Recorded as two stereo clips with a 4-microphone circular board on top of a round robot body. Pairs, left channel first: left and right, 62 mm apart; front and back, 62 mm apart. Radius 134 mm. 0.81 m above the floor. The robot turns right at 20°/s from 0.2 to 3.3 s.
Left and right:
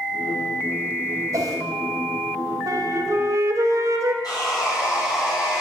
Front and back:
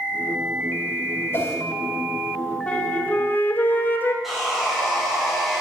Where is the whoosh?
55° right, 2 m; by 1.6 s 50° right, 2 m.